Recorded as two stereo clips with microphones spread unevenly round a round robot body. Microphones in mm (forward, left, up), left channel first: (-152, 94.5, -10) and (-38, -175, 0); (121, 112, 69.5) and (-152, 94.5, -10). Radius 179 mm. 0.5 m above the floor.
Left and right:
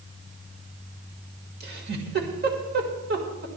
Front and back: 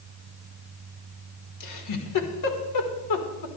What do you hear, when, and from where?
1.6 s a giggle: 10° right, 1.9 m